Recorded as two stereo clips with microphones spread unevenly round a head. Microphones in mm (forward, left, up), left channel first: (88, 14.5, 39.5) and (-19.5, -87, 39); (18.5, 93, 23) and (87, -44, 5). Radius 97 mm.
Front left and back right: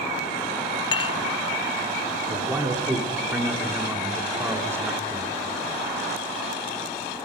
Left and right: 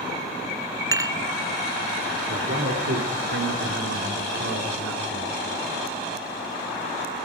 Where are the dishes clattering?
5° left, 0.5 m.